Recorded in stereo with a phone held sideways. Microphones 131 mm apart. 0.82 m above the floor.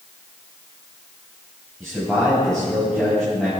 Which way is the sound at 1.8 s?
5° left (ahead or behind).